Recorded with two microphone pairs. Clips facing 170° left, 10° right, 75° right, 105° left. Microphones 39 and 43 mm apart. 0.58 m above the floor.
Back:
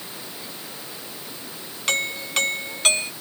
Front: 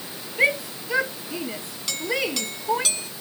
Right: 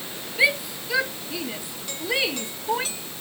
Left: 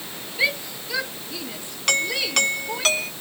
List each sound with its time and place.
0.4 s a shout: 5° left; by 2.9 s 10° right
1.9 s a doorbell: 120° left